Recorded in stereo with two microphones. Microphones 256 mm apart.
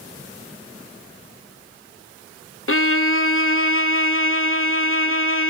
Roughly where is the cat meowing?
No cat meowing in this recording.